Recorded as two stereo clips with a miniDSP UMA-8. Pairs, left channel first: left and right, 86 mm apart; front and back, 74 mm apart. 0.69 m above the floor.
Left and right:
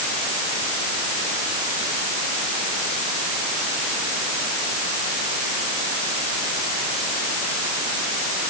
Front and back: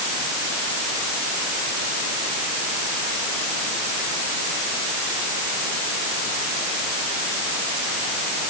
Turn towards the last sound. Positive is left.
No sound to turn to.